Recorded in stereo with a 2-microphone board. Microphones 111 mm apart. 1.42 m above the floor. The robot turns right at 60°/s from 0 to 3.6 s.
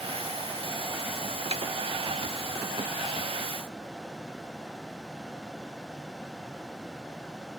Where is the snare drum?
70° right (ahead or behind), 0.6 m; by 1.6 s 65° right (ahead or behind), 0.6 m.